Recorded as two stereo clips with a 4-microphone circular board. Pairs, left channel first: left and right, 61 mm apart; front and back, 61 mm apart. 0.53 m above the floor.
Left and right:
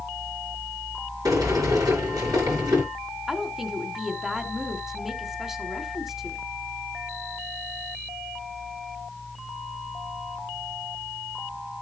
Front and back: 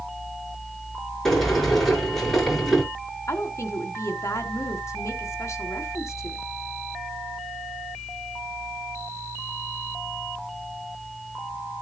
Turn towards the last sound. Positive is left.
turn(degrees=-5)